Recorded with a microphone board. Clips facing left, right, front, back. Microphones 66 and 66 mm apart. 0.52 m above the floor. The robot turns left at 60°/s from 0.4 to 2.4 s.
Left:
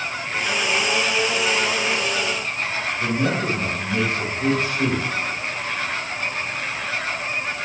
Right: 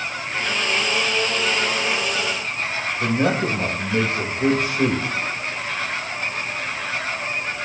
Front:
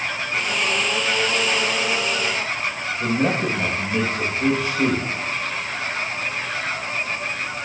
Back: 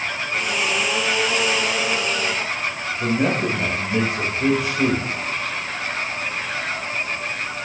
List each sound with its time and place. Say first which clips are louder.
3.0 s a man speaking: right 3 dB, back 1 dB; 105° right, 2.5 m